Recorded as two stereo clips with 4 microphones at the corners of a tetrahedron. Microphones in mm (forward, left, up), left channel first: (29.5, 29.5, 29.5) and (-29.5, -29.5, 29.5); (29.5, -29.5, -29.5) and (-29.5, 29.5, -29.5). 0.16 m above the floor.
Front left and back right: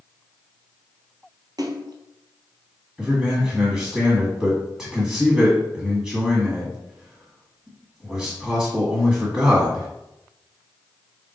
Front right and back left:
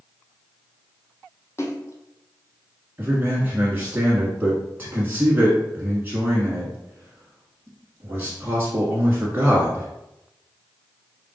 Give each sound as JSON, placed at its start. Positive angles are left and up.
{"t": 1.6, "sound": "a splash", "azimuth_deg": -100, "distance_m": 0.7}
{"t": 3.0, "sound": "a man speaking", "azimuth_deg": 150, "distance_m": 1.5}